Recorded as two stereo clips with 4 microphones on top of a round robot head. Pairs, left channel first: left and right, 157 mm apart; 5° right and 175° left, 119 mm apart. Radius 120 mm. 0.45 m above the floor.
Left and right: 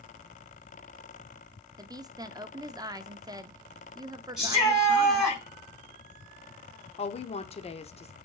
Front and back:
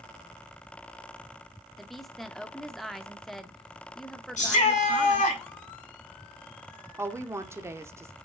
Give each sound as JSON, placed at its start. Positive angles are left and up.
{"t": 1.8, "sound": "a woman speaking", "azimuth_deg": -90, "distance_m": 0.7}
{"t": 4.4, "sound": "a shout", "azimuth_deg": 0, "distance_m": 4.0}
{"t": 7.0, "sound": "a woman speaking", "azimuth_deg": 115, "distance_m": 1.0}